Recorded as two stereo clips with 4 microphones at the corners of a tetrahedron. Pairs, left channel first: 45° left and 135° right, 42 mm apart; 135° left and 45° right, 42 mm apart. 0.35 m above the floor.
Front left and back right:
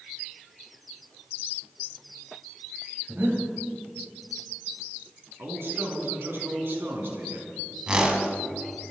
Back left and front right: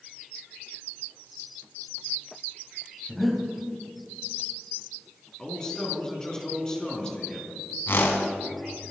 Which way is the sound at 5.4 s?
155° right.